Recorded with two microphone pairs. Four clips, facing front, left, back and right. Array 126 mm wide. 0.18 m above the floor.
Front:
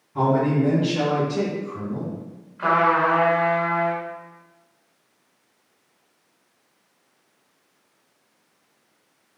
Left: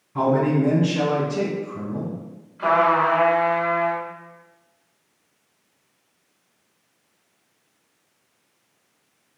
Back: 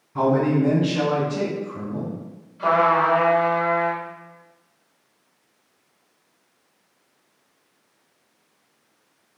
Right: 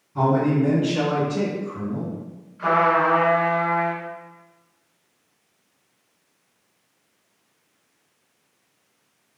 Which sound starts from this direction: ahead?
A trumpet, at 2.6 s.